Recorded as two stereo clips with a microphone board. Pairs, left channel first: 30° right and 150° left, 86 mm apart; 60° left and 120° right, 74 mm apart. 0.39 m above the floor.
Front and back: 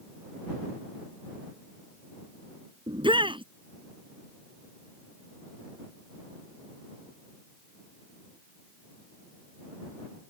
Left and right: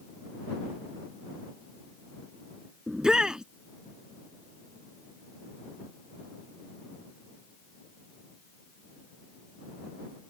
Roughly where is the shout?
Behind.